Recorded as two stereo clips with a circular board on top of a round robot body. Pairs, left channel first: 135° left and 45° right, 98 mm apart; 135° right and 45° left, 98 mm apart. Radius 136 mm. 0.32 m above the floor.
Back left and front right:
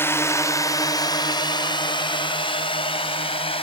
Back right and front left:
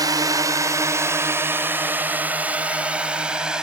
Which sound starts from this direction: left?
A drone, at 0.0 s.